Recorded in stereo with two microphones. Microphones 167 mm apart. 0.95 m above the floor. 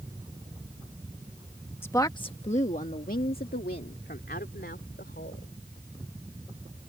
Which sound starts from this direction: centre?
A woman speaking, at 1.8 s.